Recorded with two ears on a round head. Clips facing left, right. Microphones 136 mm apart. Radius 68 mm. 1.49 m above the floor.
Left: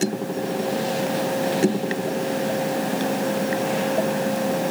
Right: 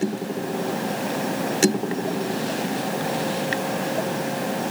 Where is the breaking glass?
No breaking glass in this recording.